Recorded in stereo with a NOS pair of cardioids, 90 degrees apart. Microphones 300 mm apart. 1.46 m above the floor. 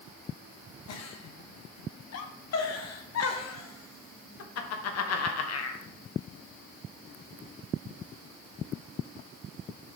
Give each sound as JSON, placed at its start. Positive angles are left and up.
{"t": 0.9, "sound": "a giggle", "azimuth_deg": 60, "distance_m": 1.2}